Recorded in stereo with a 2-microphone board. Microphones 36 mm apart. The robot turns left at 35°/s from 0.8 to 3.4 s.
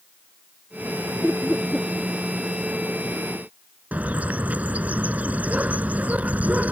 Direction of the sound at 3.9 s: 45° right (ahead or behind).